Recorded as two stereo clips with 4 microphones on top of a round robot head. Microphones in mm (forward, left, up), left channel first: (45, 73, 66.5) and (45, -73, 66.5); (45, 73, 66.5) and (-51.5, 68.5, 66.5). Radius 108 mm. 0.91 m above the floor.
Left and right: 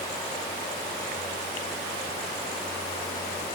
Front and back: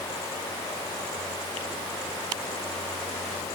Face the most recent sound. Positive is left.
No sound to turn to.